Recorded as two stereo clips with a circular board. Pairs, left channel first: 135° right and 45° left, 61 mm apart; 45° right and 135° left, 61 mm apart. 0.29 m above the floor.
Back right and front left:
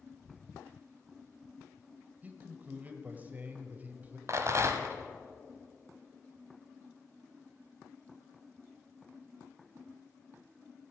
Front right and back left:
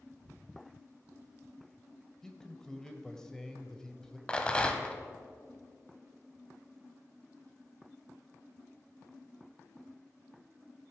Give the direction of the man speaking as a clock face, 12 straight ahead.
11 o'clock.